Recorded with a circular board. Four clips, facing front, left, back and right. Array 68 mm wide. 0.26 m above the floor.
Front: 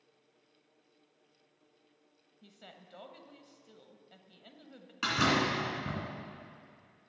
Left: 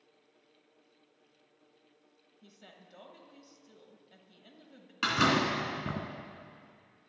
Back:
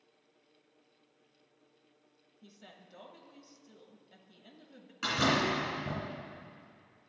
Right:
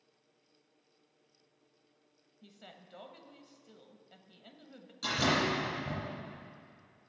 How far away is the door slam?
About 2 m.